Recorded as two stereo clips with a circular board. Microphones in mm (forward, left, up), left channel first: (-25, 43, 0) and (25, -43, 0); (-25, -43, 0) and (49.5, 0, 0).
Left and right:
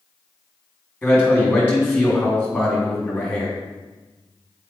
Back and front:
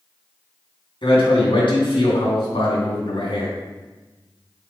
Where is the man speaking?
175° right, 3 m.